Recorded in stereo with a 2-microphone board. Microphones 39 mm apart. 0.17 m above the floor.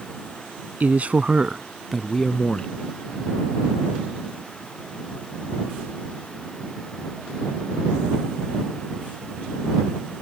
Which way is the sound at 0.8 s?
45° right (ahead or behind).